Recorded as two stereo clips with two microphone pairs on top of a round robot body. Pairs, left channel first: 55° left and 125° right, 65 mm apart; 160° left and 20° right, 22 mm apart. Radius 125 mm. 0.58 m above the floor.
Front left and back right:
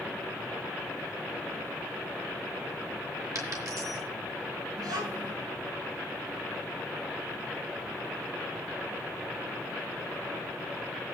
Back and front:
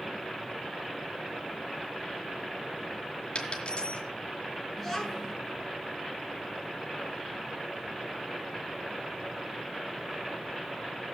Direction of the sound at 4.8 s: 115° right.